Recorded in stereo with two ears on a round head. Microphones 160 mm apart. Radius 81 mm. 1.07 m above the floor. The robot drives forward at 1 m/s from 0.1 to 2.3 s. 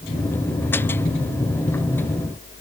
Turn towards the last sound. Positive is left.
No sound to turn to.